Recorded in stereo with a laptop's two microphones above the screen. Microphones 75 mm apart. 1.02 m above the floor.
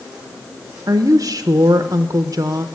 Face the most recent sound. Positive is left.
turn(degrees=-50)  # may be behind; listen again after turning